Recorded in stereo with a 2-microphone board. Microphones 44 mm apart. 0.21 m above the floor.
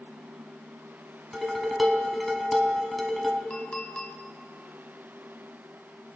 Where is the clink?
30° left (ahead or behind), 0.9 m.